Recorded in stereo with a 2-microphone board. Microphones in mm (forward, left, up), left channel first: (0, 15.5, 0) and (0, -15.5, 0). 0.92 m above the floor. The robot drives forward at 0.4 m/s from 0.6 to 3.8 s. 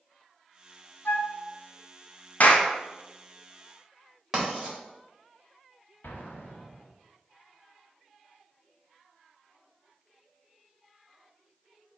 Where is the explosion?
85° left, 0.8 m.